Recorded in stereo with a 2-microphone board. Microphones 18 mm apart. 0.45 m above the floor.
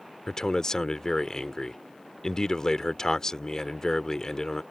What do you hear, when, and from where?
0.3 s a man speaking: 40° left (ahead or behind)